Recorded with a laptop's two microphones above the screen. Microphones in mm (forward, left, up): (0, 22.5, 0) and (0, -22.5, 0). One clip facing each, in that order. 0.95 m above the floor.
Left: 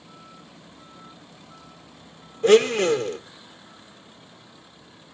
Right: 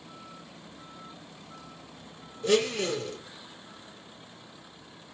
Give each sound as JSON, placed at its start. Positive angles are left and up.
{"t": 2.4, "sound": "a blender", "side_deg": 50, "distance_m": 0.6}